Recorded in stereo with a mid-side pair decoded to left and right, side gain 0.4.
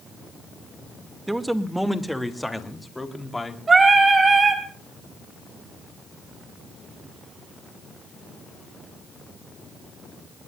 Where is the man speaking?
15° right, 2 m; by 3.6 s 20° left, 3.5 m.